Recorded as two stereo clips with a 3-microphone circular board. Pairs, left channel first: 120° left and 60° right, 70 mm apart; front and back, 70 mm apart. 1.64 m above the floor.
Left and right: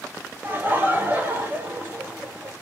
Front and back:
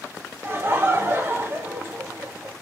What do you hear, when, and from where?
0.4 s laughter: 125° right, 1.2 m